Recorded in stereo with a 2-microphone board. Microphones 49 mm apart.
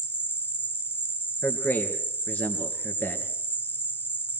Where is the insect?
45° left (ahead or behind), 1.9 m.